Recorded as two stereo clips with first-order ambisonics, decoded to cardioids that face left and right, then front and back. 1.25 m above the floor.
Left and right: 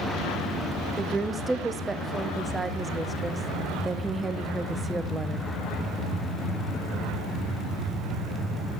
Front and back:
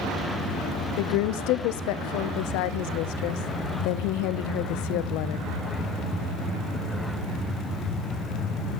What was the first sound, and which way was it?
A woman speaking, 10° right.